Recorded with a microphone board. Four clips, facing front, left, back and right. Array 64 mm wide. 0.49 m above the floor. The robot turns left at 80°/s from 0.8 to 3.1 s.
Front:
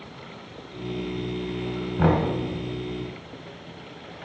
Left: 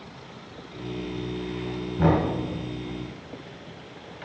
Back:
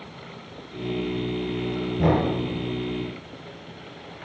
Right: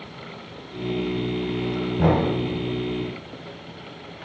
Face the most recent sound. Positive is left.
turn(degrees=-85)